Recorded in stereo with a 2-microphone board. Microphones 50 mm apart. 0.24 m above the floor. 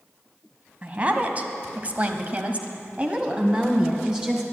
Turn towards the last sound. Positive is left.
turn(degrees=-15)  # may be behind; listen again after turning